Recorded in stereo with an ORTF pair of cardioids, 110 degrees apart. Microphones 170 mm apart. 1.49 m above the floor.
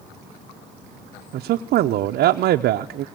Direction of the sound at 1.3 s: 70° right.